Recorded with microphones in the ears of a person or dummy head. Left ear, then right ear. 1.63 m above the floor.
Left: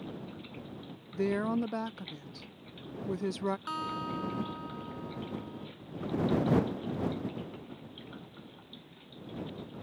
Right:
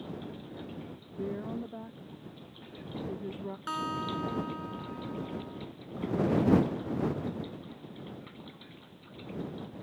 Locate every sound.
1.1 s a woman speaking: 60° left (ahead or behind)
3.7 s a guitar: 20° right (ahead or behind)